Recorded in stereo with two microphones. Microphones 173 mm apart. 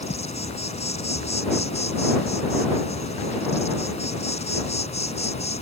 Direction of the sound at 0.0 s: 40° left (ahead or behind).